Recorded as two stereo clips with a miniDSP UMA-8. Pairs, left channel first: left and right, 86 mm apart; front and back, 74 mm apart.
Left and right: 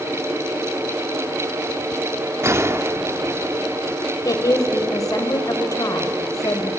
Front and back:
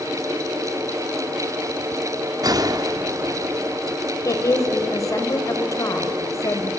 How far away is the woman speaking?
About 3 m.